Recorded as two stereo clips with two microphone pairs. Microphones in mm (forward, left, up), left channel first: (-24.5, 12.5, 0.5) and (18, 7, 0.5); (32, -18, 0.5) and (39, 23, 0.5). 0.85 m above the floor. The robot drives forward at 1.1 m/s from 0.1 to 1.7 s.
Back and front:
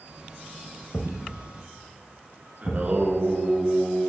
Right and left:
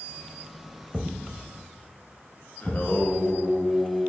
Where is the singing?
60° right, 1.2 m.